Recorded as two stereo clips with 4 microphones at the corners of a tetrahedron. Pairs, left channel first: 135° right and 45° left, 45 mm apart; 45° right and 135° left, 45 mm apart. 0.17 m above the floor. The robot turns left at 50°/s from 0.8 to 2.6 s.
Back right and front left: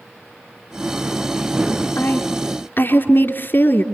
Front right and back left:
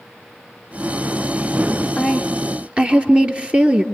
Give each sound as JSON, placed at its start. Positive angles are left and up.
{"t": 2.0, "sound": "a woman speaking", "azimuth_deg": -135, "distance_m": 3.0}